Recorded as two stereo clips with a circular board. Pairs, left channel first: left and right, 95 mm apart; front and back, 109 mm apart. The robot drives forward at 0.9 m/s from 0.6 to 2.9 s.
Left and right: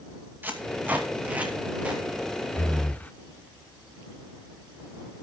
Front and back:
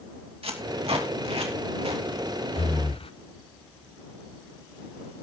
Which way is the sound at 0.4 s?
160° right.